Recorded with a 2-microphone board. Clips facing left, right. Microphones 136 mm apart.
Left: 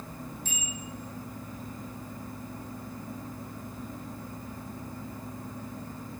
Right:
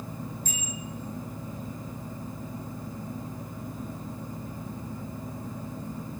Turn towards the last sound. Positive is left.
turn(degrees=-40)  # may be behind; listen again after turning